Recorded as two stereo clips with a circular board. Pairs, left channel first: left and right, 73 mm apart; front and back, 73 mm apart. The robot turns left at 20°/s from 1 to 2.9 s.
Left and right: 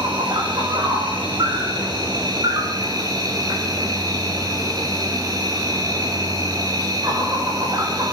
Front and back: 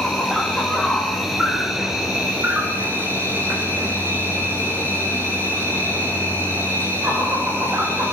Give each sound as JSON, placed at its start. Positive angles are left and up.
{"t": 0.0, "sound": "an insect", "azimuth_deg": -85, "distance_m": 8.5}